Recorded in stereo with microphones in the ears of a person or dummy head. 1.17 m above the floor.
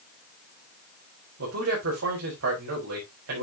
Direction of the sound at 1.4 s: 80° right.